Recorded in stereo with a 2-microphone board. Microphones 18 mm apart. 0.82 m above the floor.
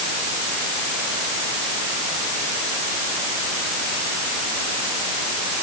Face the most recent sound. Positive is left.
No sound to turn to.